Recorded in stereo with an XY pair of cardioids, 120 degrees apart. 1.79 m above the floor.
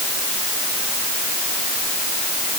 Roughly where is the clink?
No clink in this recording.